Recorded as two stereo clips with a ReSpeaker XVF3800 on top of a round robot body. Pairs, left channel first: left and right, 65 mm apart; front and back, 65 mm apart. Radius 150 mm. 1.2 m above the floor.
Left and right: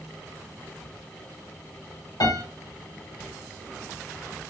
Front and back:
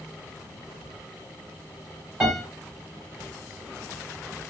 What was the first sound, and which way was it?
A piano, 100° left.